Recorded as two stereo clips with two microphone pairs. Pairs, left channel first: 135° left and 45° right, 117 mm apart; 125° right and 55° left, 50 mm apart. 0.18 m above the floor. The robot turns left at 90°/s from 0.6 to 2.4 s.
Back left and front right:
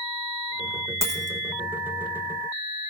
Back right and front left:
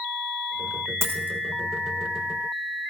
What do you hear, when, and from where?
1.0 s a dropped coin: 20° left, 1.4 m; by 1.4 s 10° right, 1.4 m